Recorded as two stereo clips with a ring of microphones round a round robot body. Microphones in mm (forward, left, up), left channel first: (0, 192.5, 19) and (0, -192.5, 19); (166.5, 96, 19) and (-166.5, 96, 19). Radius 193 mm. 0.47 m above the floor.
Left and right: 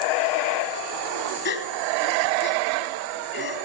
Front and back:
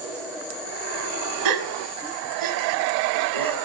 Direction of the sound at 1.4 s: 155° left.